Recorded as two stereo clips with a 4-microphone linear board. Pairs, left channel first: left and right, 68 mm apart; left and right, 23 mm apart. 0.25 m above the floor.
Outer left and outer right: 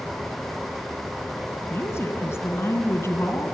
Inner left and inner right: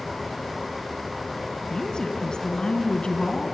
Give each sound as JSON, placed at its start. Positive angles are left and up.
{"t": 1.7, "sound": "a woman speaking", "side_deg": 40, "distance_m": 2.5}